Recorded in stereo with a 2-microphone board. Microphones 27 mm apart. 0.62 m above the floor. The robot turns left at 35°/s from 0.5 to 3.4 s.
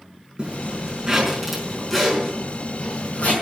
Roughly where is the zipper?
Right.